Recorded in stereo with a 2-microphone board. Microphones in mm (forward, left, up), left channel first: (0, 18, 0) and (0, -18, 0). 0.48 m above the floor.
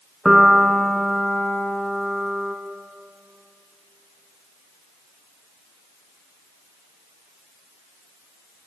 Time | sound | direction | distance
0.2 | a piano | centre (ahead or behind) | 1.3 m